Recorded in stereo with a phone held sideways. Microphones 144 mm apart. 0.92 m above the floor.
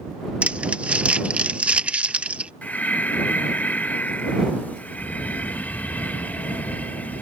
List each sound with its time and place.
0.4 s crumpling: 10° right (ahead or behind)
2.6 s breathing: 10° left (ahead or behind)